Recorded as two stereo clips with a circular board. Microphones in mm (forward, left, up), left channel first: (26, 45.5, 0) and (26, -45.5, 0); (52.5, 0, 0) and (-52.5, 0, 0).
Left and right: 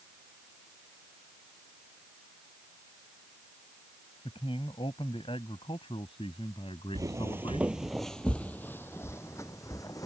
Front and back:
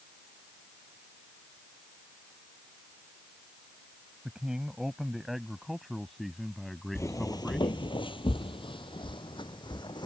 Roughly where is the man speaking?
Left.